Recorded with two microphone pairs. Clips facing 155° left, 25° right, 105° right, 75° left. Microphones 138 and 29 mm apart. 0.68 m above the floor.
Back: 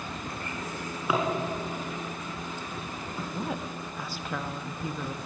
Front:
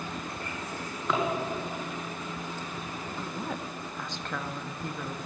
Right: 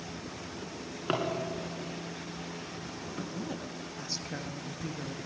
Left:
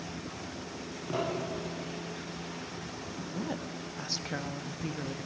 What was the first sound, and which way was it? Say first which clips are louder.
A drawer: back 1 dB, right 4 dB; 120° right.